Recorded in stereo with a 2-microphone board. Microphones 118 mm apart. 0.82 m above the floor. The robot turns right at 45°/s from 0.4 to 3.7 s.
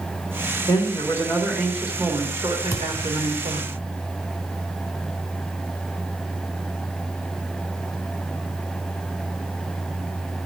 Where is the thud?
30° left (ahead or behind), 2.5 m; by 3.1 s 10° left (ahead or behind), 2.5 m.